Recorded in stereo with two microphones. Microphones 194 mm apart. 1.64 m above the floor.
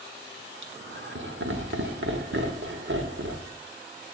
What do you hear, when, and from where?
0.6 s laughter: 80° right, 1.1 m